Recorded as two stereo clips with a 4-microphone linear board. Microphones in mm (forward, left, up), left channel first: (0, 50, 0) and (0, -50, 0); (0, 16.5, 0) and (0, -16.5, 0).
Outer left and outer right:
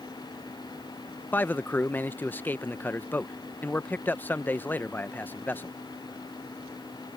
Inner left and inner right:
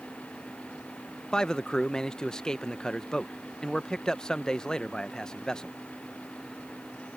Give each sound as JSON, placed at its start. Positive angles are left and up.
{"t": 1.3, "sound": "a man speaking", "side_deg": 20}